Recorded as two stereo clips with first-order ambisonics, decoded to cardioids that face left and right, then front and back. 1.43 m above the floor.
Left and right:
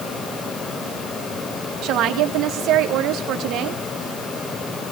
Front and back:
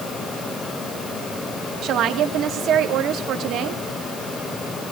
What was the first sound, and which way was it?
A woman speaking, 130° right.